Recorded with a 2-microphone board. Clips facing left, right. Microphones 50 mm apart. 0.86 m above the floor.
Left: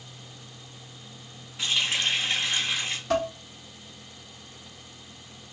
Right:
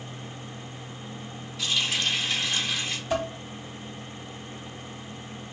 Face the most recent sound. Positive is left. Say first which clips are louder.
# left 2 dB
turn(degrees=70)  # may be behind; listen again after turning